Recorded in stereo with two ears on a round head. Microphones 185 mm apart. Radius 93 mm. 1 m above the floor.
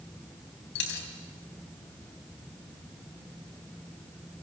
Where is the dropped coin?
60° left (ahead or behind), 3.5 m.